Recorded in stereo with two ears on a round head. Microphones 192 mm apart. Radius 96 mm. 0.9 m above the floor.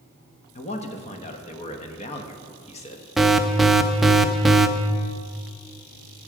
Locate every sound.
0.6 s a man speaking: 30° left (ahead or behind), 1.1 m
3.2 s an alarm: centre (ahead or behind), 0.5 m